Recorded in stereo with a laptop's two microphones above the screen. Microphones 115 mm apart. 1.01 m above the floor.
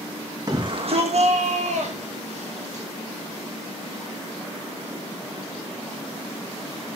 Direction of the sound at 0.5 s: 30° right (ahead or behind).